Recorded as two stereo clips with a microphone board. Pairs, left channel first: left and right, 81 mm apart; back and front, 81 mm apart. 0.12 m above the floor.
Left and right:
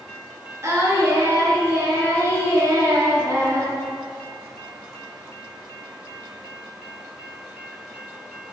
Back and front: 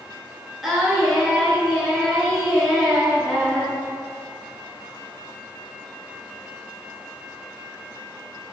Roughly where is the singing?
Right.